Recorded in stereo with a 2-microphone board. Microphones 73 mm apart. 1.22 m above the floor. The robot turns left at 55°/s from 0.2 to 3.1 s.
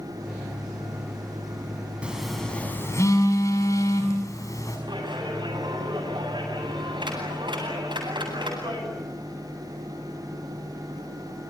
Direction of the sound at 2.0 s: 15° right (ahead or behind).